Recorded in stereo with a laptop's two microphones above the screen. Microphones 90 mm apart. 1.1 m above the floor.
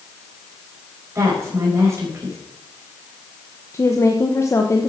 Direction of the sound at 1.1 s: 35° right (ahead or behind).